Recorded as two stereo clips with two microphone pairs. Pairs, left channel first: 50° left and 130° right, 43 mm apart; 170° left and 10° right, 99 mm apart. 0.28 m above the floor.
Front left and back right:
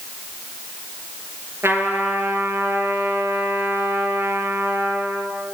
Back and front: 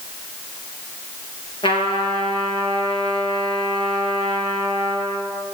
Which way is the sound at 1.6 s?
160° right.